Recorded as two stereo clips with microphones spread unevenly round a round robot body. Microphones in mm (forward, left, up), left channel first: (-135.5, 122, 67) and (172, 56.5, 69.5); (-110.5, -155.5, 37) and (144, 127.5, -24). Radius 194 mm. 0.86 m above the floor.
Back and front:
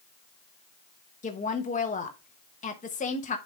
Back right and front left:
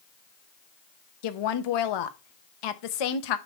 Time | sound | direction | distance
1.2 | a woman speaking | 130° right | 0.9 m